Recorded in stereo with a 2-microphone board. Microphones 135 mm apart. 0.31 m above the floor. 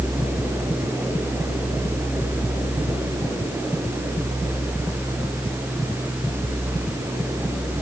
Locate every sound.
Only background noise.